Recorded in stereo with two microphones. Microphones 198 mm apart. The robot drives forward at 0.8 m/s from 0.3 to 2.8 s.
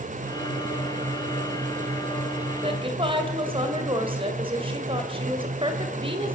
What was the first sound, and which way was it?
A woman speaking, 30° right (ahead or behind).